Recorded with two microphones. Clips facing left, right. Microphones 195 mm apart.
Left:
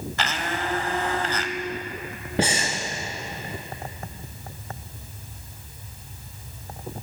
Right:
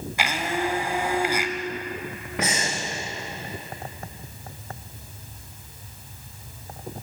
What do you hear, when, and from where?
0.2 s a blender: 10° right (ahead or behind), 1.3 m
2.4 s breathing: 30° left (ahead or behind), 4 m